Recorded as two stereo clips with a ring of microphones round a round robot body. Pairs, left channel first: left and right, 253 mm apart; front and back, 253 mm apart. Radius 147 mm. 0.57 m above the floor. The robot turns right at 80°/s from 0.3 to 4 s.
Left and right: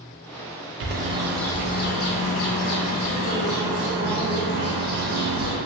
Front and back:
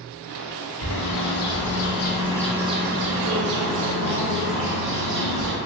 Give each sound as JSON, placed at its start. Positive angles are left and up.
{"t": 0.8, "sound": "a bird", "azimuth_deg": -45, "distance_m": 0.5}